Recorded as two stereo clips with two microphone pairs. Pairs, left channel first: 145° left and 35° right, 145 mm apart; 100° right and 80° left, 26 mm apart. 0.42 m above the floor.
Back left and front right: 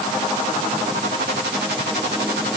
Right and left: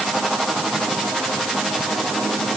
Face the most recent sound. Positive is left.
No sound to turn to.